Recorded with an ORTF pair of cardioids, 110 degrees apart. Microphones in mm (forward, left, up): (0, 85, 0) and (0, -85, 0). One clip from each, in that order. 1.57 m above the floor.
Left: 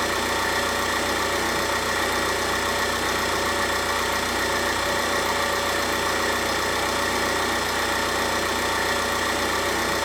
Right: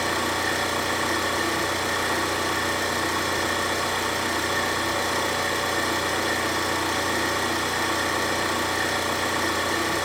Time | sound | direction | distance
0.0 | an engine running | 20° left | 3.5 m